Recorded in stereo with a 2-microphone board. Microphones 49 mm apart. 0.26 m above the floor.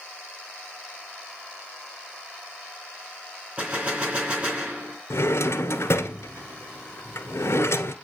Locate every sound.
3.6 s a gunshot: 25° right (ahead or behind), 3 m
5.1 s a drawer: 80° left, 1.3 m